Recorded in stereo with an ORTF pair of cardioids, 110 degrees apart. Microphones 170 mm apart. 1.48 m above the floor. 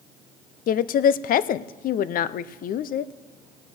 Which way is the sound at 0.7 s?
55° left.